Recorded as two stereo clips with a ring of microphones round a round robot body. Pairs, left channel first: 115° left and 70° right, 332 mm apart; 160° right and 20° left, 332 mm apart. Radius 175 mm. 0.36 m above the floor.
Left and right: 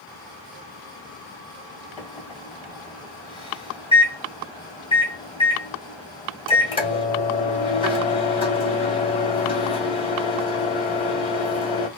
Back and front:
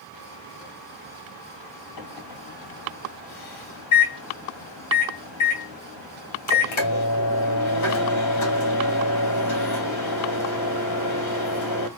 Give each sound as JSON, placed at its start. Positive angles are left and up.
{"t": 2.0, "sound": "a microwave", "azimuth_deg": -175, "distance_m": 1.8}